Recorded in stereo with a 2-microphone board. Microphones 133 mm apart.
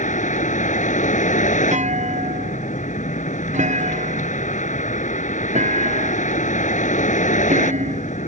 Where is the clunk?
75° right (ahead or behind).